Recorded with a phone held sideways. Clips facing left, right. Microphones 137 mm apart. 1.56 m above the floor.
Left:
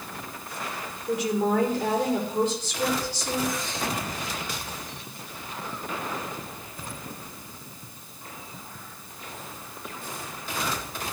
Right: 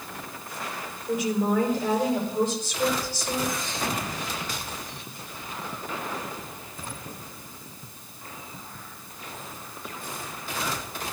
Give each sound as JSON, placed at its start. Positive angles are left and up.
{"t": 1.1, "sound": "a woman speaking", "side_deg": 75, "distance_m": 4.0}